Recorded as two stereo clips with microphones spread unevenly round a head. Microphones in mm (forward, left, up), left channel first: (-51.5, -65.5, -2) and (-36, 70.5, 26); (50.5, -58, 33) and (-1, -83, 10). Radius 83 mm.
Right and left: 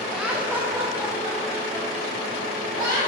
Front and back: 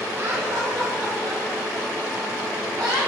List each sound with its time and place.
0.1 s laughter: straight behind, 0.7 m; by 3.0 s 150° left, 4 m